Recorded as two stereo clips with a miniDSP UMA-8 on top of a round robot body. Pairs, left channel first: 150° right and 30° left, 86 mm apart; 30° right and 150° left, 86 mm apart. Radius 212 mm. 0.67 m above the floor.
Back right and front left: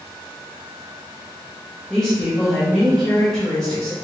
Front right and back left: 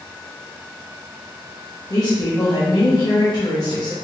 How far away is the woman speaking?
About 1.4 m.